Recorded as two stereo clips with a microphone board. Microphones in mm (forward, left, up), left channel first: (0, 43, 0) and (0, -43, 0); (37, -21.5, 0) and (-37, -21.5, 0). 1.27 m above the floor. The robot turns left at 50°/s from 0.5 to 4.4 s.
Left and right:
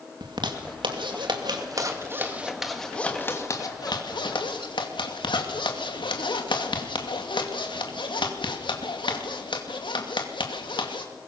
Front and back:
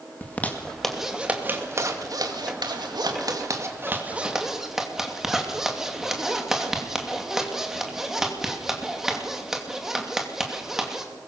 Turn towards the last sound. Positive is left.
turn(degrees=95)